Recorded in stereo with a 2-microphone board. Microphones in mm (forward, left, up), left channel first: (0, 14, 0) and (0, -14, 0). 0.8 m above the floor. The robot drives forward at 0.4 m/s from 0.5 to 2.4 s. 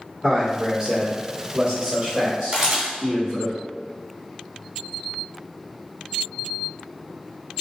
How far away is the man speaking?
About 1.5 m.